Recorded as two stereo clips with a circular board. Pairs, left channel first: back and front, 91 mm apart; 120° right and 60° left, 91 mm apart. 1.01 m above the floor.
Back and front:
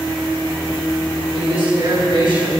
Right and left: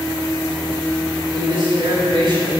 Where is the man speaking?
30° left, 6 m.